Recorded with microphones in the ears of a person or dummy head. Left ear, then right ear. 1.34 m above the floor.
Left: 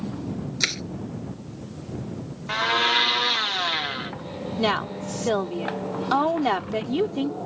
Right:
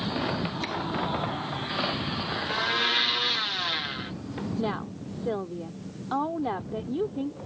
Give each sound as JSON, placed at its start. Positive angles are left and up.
{"t": 0.6, "sound": "crushing", "side_deg": 55}
{"t": 2.5, "sound": "a blender", "side_deg": 25}
{"t": 4.6, "sound": "a woman speaking", "side_deg": 70}